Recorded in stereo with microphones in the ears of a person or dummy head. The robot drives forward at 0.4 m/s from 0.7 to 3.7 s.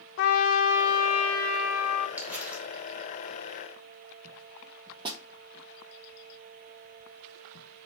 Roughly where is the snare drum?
Right.